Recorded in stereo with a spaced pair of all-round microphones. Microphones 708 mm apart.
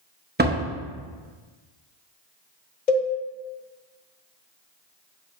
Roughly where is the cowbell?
Left.